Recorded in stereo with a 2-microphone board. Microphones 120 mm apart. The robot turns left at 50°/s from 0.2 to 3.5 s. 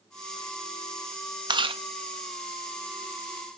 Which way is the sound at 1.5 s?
40° right (ahead or behind).